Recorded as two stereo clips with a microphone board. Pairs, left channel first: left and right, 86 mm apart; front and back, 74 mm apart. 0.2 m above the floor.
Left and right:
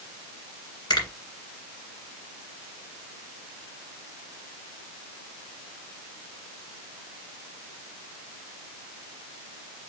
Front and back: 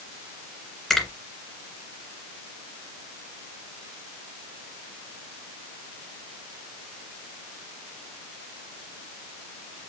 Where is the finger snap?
85° left, 1.8 m.